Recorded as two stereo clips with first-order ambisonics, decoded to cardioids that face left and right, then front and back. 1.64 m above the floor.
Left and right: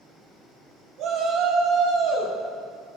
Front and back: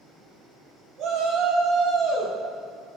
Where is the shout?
135° right, 3 m.